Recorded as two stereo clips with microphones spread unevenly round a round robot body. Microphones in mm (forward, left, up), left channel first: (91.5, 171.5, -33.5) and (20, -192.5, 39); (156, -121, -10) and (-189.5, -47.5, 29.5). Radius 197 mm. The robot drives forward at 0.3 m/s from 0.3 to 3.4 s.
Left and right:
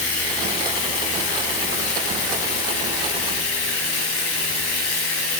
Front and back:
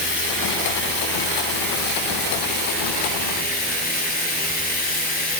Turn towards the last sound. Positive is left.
turn(degrees=60)